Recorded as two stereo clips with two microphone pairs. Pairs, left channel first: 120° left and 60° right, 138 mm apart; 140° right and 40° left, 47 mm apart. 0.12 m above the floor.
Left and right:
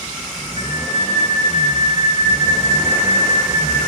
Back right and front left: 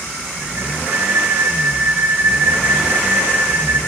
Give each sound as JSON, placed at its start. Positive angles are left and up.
{"t": 0.6, "sound": "a flute", "azimuth_deg": 80, "distance_m": 4.0}